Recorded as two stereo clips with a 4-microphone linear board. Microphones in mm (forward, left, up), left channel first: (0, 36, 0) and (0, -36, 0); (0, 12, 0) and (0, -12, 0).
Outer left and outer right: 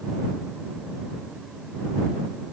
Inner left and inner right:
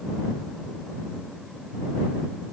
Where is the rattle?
I don't hear a rattle.